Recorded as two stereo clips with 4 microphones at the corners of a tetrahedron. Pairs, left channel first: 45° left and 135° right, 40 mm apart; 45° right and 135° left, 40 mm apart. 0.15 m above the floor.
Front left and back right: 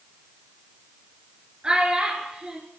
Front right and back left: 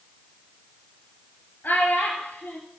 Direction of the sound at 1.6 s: 70° right.